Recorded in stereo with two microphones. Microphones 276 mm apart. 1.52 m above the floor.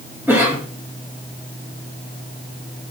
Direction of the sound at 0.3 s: 10° right (ahead or behind).